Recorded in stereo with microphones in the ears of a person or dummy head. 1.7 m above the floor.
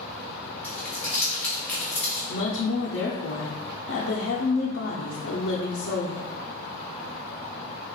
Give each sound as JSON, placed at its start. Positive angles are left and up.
{"t": 0.6, "sound": "crumpling", "side_deg": 10, "distance_m": 0.6}
{"t": 2.3, "sound": "a woman speaking", "side_deg": 65, "distance_m": 0.7}